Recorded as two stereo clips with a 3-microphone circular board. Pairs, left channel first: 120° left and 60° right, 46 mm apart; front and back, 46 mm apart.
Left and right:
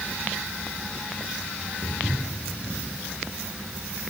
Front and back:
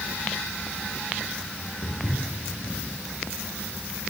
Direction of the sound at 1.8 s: 15° right.